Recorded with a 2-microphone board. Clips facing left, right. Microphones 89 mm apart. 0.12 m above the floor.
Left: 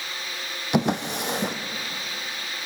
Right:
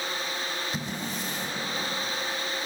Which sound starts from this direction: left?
A drawer, at 0.7 s.